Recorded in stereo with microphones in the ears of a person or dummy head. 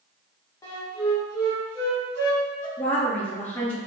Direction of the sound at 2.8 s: 5° left (ahead or behind).